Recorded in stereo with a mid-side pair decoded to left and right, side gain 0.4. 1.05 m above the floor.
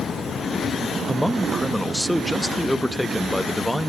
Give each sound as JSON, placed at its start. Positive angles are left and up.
{"t": 1.1, "sound": "a man speaking", "azimuth_deg": 5, "distance_m": 1.0}